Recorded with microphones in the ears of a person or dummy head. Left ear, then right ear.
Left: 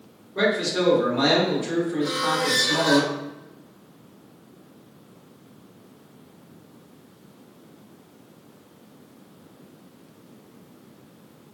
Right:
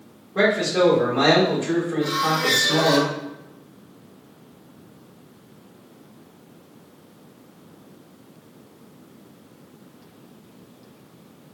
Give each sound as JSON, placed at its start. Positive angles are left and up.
{"t": 0.3, "sound": "a man speaking", "side_deg": -65, "distance_m": 1.8}
{"t": 2.0, "sound": "a squeak", "side_deg": 0, "distance_m": 0.5}